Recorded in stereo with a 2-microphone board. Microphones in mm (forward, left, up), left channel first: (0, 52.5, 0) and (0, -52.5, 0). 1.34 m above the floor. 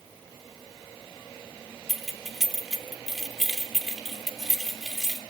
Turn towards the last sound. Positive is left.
turn(degrees=0)  # may be behind; listen again after turning